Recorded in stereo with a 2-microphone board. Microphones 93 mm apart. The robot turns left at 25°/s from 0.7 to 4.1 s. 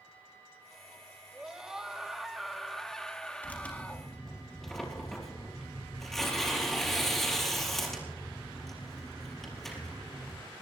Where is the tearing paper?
20° left (ahead or behind), 4.5 m; by 10.3 s 5° left (ahead or behind), 4.5 m.